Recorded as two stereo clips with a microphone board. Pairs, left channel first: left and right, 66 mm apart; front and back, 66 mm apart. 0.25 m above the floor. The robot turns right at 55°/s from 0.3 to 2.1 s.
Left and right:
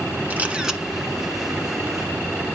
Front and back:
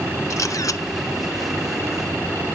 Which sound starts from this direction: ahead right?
A camera shutter, at 0.3 s.